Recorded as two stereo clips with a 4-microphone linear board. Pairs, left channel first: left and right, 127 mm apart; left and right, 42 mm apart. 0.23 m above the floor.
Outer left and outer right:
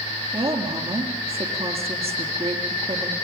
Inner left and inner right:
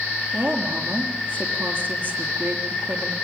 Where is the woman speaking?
50° right (ahead or behind), 6 m.